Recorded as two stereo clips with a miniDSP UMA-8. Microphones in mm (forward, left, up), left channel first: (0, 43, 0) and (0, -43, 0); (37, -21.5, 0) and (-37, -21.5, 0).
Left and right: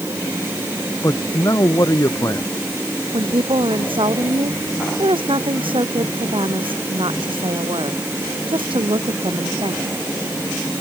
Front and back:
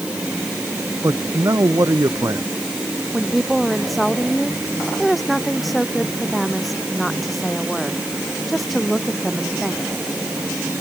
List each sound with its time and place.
1.0 s a man speaking: 140° left
3.1 s a woman speaking: 90° right